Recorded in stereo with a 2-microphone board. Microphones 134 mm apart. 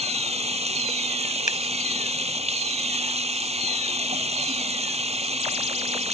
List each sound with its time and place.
0.0 s running water: 50° right (ahead or behind)
1.5 s scissors: 70° left (ahead or behind)